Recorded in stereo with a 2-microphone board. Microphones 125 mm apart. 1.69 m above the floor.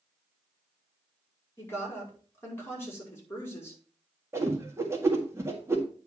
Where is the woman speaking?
20° left (ahead or behind), 4.5 m.